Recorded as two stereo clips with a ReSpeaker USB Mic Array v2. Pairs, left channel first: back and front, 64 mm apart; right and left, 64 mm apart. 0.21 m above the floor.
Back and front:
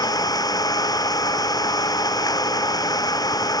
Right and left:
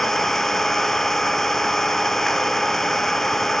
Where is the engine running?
170° right.